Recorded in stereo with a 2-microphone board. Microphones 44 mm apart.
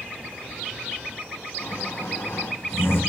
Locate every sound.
1.6 s snoring: 80° left, 2 m